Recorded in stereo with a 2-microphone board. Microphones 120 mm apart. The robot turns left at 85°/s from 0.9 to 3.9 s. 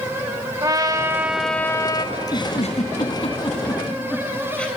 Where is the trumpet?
135° right, 1.3 m; by 2.0 s 125° left, 1.3 m.